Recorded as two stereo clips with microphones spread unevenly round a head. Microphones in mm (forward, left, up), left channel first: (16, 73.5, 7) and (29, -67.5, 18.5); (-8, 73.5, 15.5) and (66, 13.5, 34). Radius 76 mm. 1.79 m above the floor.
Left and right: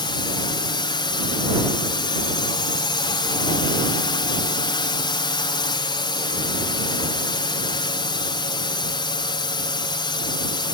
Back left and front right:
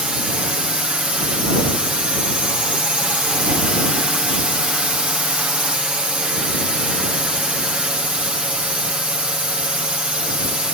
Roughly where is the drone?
Ahead left.